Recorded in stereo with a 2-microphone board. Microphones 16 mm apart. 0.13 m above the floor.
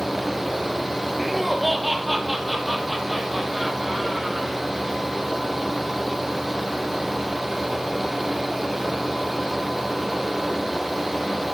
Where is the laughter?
5° left (ahead or behind), 3 m.